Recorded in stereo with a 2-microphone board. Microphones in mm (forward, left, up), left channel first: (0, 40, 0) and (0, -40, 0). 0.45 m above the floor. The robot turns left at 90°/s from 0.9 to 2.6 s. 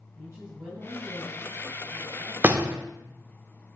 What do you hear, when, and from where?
0.2 s a woman speaking: 25° right, 2.5 m; by 2.3 s 155° right, 2.5 m
2.4 s a door slam: 25° right (ahead or behind), 0.9 m